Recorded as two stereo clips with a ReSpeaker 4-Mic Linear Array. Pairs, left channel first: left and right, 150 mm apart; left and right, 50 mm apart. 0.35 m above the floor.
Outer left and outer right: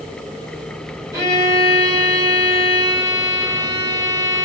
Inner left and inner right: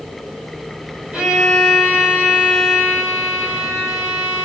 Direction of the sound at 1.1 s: 20° right (ahead or behind).